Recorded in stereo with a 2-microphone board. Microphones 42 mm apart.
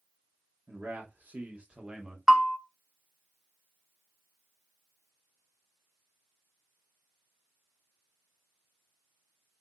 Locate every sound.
0.7 s a man speaking: 50° right (ahead or behind), 0.9 m; by 2.2 s 15° right (ahead or behind), 1.1 m
2.3 s a bell: 5° right (ahead or behind), 0.5 m